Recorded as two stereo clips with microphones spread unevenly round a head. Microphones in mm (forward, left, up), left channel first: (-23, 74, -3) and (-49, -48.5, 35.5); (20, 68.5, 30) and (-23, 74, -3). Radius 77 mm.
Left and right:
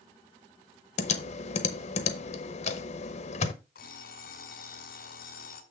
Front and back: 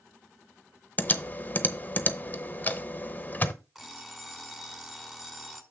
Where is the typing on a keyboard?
60° left, 0.8 m.